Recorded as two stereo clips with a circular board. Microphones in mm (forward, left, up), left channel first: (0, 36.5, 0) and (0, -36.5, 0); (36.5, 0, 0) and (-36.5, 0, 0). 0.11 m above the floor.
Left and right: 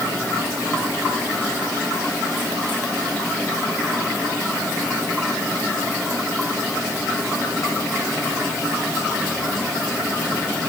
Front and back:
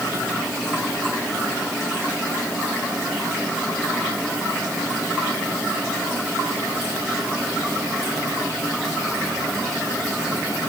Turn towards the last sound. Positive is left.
No sound to turn to.